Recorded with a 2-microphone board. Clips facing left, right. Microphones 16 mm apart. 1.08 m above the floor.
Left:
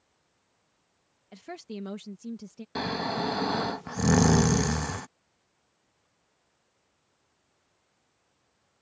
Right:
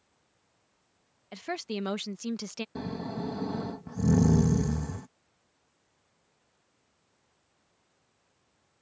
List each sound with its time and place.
1.3 s a woman speaking: 30° right (ahead or behind); by 2.6 s 60° right (ahead or behind)
2.8 s snoring: 55° left (ahead or behind)